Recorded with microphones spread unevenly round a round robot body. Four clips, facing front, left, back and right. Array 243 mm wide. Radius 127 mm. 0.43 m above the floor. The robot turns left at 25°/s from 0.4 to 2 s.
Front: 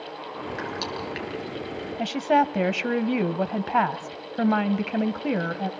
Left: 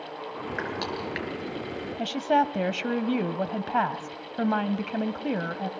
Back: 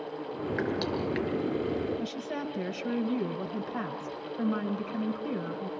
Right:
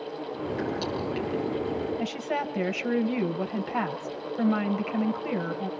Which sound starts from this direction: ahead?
A woman speaking, at 2.0 s.